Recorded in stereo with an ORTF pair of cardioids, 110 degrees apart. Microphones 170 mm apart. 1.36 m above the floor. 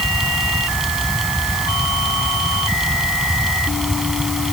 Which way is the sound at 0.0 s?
Straight ahead.